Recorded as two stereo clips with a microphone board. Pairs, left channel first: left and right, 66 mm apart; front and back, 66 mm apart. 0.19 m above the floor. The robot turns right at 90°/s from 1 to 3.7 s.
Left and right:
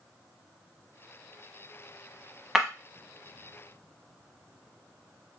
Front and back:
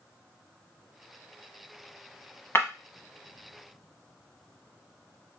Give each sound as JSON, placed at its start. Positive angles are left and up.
{"t": 2.5, "sound": "breaking glass", "azimuth_deg": -10, "distance_m": 0.8}